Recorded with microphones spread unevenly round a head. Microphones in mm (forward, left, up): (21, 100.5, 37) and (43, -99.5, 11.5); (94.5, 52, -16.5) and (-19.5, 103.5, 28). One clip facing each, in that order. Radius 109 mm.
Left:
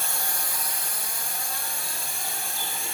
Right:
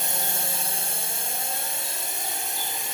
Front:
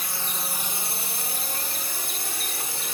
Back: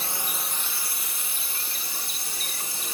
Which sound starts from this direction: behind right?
A drone, at 0.0 s.